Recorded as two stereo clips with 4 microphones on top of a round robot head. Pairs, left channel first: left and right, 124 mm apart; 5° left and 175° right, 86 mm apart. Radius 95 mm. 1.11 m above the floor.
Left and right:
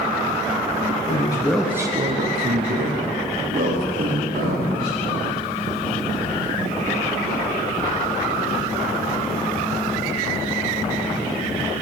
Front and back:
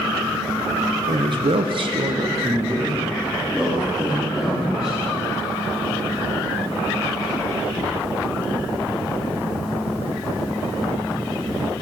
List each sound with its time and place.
1.1 s a man speaking: 140° left, 0.8 m; by 5.0 s 90° right, 3 m